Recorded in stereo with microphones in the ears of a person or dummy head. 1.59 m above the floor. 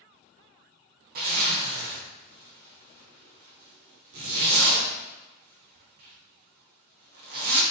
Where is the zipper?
50° right (ahead or behind), 0.7 m.